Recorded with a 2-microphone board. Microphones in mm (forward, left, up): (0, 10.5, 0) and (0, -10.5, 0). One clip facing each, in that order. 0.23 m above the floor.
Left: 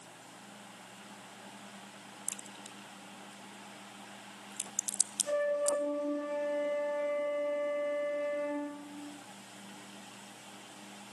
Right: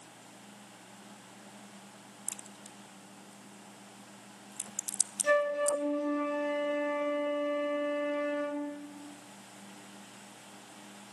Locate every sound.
2.3 s a crack: 25° left (ahead or behind), 0.5 m
5.2 s a flute: 70° right (ahead or behind), 4.5 m